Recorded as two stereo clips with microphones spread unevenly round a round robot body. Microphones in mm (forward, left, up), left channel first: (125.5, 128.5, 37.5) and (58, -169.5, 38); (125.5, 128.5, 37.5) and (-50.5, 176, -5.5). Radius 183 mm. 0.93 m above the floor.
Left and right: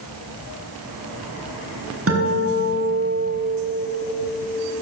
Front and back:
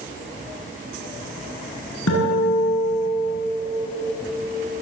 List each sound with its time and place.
2.1 s a guitar: 60° right, 7.5 m